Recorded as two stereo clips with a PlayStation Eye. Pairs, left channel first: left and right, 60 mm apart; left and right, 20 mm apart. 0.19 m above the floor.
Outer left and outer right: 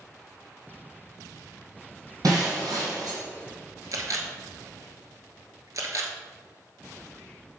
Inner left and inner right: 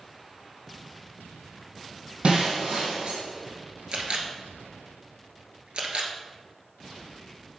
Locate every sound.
2.2 s breaking glass: 75° right (ahead or behind), 2.5 m
3.9 s a camera shutter: 60° right (ahead or behind), 1.1 m